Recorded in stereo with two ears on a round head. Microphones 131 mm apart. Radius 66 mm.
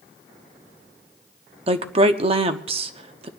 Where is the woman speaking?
40° right (ahead or behind), 0.8 m.